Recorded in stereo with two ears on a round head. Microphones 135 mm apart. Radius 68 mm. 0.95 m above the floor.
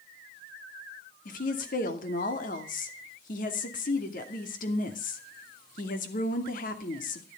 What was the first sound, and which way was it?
A woman speaking, 55° left (ahead or behind).